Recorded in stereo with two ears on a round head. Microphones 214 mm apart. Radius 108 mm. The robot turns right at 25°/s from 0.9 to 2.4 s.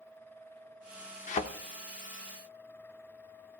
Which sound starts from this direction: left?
A thud, at 1.3 s.